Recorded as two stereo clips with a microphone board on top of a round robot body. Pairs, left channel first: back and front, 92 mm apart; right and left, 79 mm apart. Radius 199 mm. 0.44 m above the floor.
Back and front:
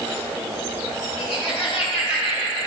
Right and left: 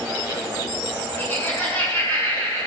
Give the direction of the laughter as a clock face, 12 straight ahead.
5 o'clock.